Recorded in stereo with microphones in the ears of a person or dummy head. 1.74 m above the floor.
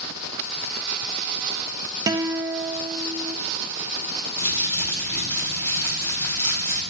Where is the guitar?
15° right (ahead or behind), 0.9 m.